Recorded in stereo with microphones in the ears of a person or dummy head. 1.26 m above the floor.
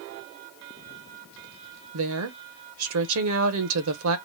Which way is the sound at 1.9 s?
70° right (ahead or behind).